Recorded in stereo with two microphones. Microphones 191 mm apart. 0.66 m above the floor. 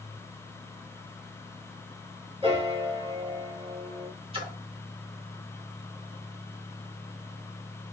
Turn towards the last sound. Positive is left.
turn(degrees=-30)  # may be behind; listen again after turning